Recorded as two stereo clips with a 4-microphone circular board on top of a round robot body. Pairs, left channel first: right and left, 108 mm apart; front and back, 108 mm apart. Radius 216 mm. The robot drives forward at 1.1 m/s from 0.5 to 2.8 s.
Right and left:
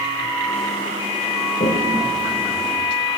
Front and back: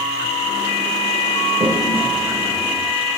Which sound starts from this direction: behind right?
A toilet flushing, at 1.6 s.